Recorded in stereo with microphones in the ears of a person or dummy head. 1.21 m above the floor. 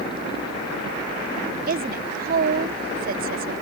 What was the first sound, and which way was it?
A woman speaking, 40° right (ahead or behind).